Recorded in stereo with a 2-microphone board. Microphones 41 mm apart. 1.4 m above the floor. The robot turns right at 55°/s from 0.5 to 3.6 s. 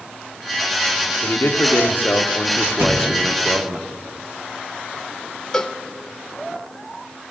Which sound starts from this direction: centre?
A cowbell, at 5.5 s.